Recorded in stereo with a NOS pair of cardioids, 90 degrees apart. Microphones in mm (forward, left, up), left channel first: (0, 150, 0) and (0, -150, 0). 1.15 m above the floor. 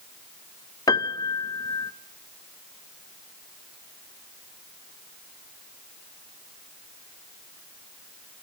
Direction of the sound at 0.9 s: 10° left.